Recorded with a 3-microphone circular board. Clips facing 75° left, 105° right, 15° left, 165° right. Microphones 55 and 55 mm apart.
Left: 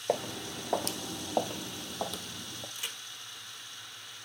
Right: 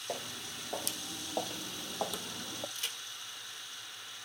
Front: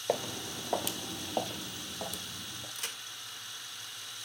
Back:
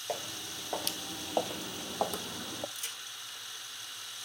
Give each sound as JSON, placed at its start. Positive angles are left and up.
{"t": 0.1, "sound": "footsteps", "azimuth_deg": 75, "distance_m": 1.1}
{"t": 2.8, "sound": "a crack", "azimuth_deg": 0, "distance_m": 1.2}